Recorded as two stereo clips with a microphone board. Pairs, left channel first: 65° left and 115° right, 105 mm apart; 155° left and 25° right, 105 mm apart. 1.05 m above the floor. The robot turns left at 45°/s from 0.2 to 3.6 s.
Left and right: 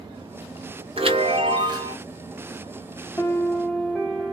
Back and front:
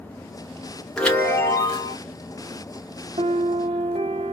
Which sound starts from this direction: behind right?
A chime, at 1.0 s.